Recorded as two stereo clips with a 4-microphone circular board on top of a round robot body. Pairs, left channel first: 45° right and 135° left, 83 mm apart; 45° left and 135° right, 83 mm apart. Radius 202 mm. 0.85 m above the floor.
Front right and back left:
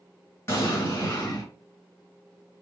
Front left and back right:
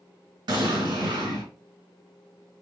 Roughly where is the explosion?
Right.